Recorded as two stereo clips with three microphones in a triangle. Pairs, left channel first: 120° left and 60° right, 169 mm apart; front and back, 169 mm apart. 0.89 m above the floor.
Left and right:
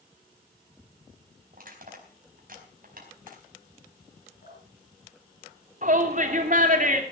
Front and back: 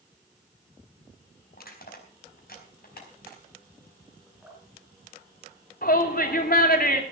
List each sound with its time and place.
1.5 s crushing: 25° right, 4.5 m
4.4 s dripping: 100° left, 5 m
5.8 s a shout: 25° right, 2.5 m